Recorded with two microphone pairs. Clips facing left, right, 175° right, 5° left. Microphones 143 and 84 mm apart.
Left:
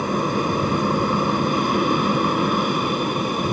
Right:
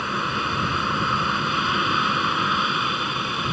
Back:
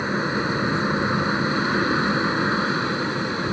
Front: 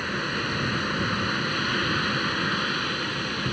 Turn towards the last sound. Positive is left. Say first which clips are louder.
# left 7 dB, back 5 dB
turn(degrees=125)